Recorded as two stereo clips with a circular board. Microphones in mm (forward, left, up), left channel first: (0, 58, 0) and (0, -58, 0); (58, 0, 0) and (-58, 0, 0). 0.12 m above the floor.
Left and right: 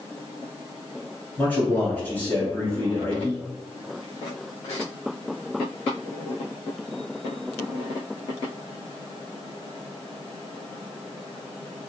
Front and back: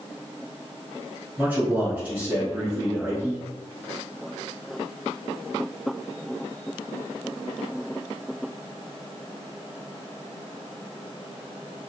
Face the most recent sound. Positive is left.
turn(degrees=135)